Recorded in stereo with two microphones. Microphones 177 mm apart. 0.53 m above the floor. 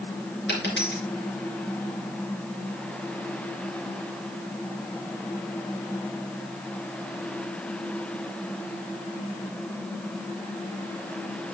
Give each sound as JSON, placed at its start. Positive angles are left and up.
{"t": 0.5, "sound": "a dropped coin", "side_deg": 85, "distance_m": 3.5}